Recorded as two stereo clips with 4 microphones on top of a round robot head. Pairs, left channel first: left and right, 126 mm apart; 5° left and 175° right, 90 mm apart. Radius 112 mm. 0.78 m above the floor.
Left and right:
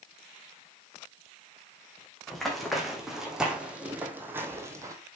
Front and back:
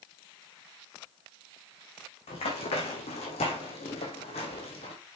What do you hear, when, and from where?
2.3 s running footsteps: 5° left, 2.5 m; by 5.0 s 25° right, 1.6 m